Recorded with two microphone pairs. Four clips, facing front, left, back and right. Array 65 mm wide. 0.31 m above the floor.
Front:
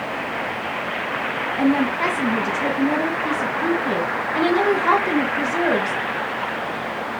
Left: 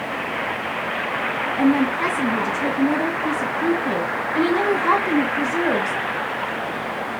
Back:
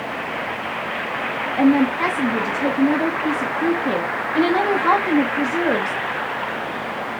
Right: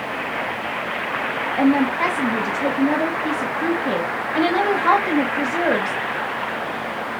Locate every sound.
1.6 s a woman speaking: 105° right, 2 m